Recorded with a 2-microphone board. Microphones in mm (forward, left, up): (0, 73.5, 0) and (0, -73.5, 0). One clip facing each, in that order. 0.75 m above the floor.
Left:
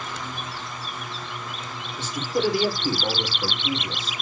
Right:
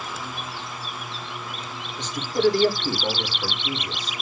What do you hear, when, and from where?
2.0 s a man speaking: 5° left (ahead or behind), 3 m; by 4.2 s 35° left (ahead or behind), 3.5 m